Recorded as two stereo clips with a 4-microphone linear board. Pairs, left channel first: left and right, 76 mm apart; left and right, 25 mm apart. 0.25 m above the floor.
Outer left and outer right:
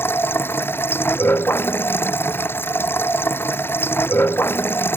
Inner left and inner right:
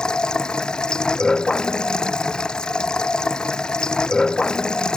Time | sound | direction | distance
0.0 | running water | 30° left (ahead or behind) | ?